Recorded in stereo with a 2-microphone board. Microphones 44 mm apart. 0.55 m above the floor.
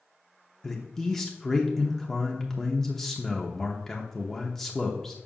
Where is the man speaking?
10° left (ahead or behind), 0.8 m.